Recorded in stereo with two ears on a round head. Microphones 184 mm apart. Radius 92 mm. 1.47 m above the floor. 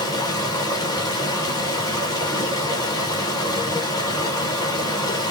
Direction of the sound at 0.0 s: 20° left (ahead or behind).